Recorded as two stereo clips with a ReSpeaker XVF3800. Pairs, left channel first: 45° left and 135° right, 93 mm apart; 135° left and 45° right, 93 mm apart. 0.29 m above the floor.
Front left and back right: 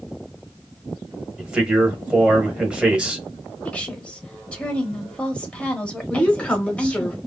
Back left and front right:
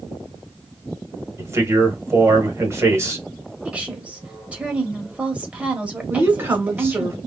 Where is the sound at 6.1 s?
20° right, 1.1 m.